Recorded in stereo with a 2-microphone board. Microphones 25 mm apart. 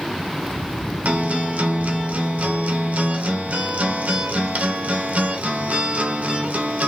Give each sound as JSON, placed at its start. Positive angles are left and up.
{"t": 1.1, "sound": "a guitar", "side_deg": -85, "distance_m": 0.9}